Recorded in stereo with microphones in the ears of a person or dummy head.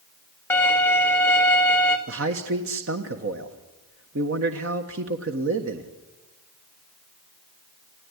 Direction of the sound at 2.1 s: 65° right (ahead or behind).